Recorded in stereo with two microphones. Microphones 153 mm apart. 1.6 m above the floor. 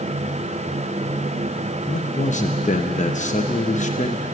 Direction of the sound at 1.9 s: 55° left (ahead or behind).